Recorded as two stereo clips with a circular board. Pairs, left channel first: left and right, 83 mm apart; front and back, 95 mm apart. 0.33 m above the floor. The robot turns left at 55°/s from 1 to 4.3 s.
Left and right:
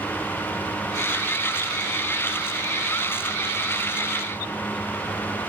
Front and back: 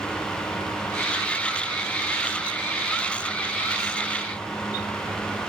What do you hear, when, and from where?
Only background noise.